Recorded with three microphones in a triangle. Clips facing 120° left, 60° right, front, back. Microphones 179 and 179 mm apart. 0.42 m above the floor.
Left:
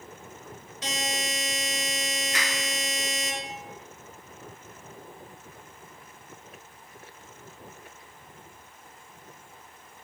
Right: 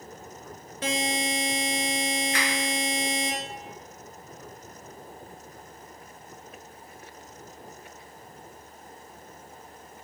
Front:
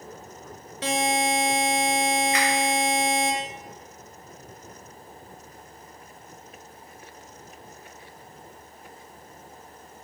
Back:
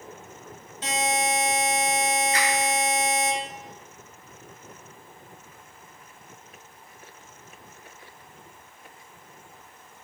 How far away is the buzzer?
About 0.6 m.